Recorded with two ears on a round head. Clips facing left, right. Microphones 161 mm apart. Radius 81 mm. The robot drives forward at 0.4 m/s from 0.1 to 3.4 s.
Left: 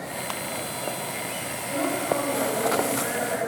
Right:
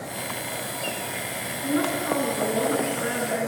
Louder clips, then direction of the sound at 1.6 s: Right 2 dB; 70° right (ahead or behind).